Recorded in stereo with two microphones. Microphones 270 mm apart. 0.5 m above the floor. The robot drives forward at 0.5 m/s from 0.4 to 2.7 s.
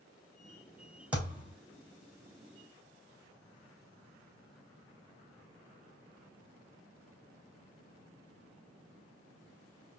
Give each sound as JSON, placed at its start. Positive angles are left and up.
{"t": 1.1, "sound": "a thud", "side_deg": -5, "distance_m": 3.0}